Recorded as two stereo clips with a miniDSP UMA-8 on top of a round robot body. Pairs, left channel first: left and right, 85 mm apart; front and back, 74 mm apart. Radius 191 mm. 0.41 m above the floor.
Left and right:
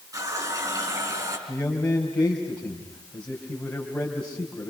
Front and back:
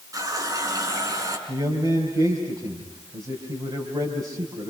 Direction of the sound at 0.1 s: 140° right.